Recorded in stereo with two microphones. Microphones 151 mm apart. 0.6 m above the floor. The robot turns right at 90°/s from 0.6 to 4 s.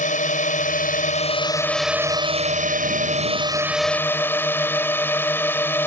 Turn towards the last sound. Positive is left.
turn(degrees=15)